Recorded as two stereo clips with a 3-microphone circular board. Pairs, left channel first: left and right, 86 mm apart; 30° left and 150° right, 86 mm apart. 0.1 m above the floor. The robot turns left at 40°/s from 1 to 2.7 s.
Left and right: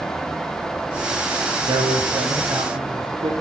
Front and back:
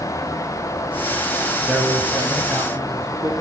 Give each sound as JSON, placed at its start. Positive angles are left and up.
{"t": 1.7, "sound": "a man speaking", "azimuth_deg": -60, "distance_m": 7.5}